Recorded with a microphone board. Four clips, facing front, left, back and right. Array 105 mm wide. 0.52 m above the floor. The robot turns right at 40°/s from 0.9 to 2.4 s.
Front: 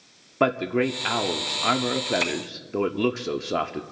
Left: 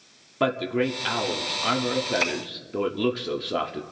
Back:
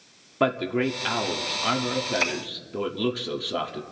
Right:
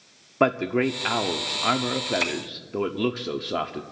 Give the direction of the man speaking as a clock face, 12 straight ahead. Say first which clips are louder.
Right 2 dB, front 1 dB; 2 o'clock.